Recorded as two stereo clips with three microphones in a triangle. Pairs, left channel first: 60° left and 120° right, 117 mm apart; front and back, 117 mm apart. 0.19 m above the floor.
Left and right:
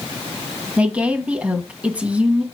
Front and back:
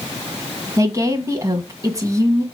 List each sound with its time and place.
0.8 s a woman speaking: 175° left, 1.4 m